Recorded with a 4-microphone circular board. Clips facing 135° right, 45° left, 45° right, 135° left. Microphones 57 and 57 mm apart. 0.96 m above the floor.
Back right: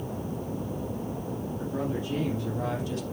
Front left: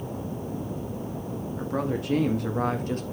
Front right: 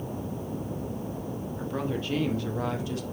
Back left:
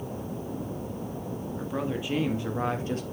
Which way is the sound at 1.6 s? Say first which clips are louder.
Front left 4 dB, even; 50° left.